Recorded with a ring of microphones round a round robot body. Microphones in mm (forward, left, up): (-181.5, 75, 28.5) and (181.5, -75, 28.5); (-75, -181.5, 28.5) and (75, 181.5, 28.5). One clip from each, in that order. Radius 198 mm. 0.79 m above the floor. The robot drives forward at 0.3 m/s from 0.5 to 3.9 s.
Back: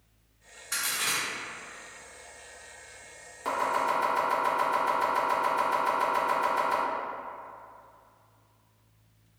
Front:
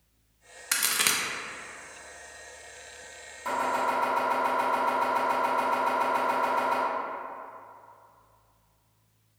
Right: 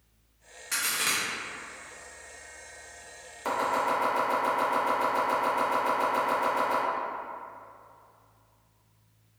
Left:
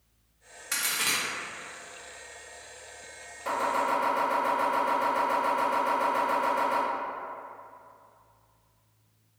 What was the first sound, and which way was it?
A crack, 15° right.